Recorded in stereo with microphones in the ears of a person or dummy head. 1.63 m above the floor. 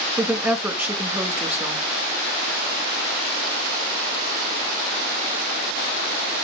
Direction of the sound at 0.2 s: 10° right (ahead or behind).